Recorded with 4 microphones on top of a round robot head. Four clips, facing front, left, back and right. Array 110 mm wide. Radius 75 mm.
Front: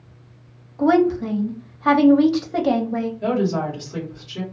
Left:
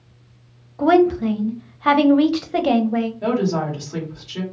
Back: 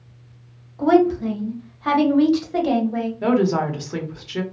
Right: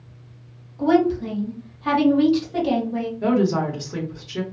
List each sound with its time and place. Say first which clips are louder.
0.8 s a woman speaking: left 3 dB, back 1 dB; 65° left, 0.7 m
3.2 s a woman speaking: right 5 dB, back 4 dB; 170° right, 1.1 m